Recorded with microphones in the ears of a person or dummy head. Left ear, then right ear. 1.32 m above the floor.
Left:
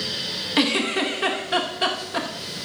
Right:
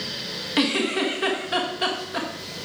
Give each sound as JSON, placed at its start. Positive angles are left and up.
{"t": 0.6, "sound": "a giggle", "side_deg": 10, "distance_m": 1.3}